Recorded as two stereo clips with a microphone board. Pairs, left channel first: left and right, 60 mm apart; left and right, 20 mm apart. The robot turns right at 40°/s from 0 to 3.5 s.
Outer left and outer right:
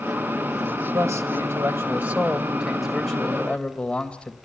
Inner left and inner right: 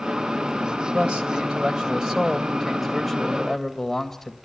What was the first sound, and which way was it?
A man speaking, 80° right.